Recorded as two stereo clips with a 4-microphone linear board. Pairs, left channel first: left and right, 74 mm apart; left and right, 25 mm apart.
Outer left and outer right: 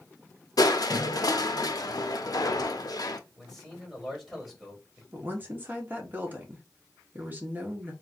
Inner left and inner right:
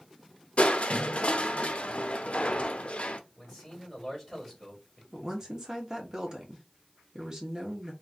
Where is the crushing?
55° left (ahead or behind), 0.6 m.